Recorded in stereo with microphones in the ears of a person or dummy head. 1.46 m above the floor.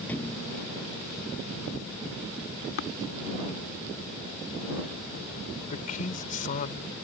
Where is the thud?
10° left (ahead or behind).